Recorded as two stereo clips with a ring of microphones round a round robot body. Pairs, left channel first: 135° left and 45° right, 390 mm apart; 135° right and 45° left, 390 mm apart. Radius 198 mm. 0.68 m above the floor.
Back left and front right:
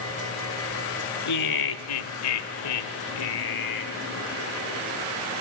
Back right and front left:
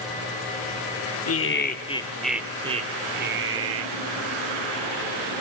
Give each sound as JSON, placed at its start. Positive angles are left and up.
{"t": 1.3, "sound": "laughter", "azimuth_deg": 175, "distance_m": 2.5}